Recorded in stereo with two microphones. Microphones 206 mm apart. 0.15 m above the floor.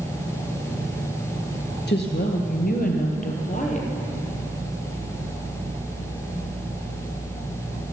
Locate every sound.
1.9 s a woman speaking: 55° left (ahead or behind), 2 m; by 3.9 s 35° left (ahead or behind), 3.5 m